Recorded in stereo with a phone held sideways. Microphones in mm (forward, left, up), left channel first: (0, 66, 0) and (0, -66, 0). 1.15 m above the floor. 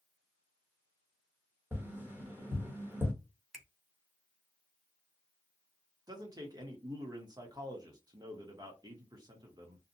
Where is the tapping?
15° right (ahead or behind), 0.9 m.